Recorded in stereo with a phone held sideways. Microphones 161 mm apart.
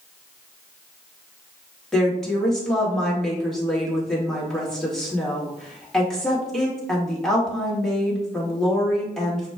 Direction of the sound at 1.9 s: 5° left (ahead or behind).